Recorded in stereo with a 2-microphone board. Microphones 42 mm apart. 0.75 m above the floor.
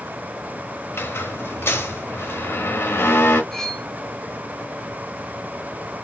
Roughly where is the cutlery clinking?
Centre.